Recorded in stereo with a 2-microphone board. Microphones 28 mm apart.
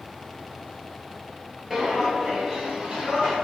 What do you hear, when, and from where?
1.7 s footsteps: 5° right (ahead or behind), 0.8 m; by 3.4 s 20° right (ahead or behind), 1.6 m